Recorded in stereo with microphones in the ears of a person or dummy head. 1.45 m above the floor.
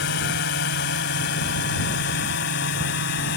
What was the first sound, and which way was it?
A drone, 55° left (ahead or behind).